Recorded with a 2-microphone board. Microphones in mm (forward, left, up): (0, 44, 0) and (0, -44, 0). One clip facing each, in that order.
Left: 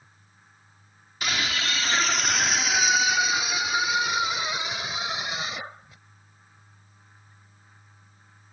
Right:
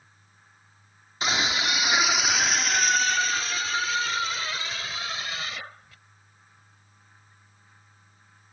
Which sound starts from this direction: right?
A scream, at 1.2 s.